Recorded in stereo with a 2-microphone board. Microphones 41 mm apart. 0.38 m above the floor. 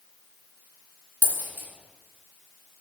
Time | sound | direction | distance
1.2 | a dropped coin | 65° right (ahead or behind) | 1.6 m